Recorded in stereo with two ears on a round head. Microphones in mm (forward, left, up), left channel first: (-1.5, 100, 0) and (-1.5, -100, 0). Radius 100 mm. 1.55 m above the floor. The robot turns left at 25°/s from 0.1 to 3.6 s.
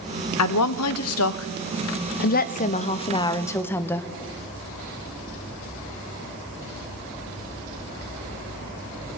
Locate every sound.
0.4 s a woman speaking: 90° left, 0.6 m; by 4.1 s 10° left, 0.6 m